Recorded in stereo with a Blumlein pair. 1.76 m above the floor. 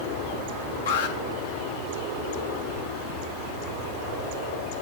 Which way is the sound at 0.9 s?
60° left.